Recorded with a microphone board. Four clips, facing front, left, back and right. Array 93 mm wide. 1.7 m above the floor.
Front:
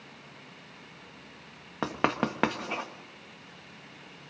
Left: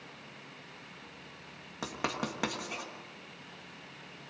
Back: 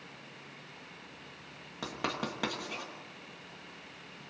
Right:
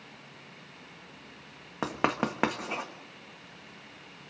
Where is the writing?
40° right, 1.5 m.